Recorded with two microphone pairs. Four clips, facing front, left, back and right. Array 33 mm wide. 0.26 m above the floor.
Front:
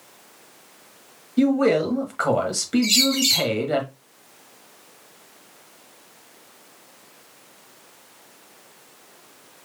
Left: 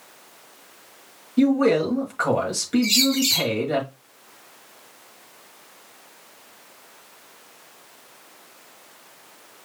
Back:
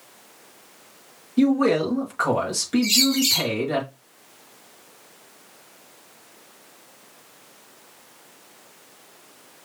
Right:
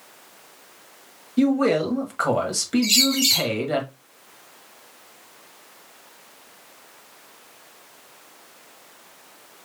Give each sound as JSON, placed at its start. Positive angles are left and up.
{"t": 1.4, "sound": "a man speaking", "azimuth_deg": -30, "distance_m": 1.3}
{"t": 2.8, "sound": "a bird", "azimuth_deg": -35, "distance_m": 1.4}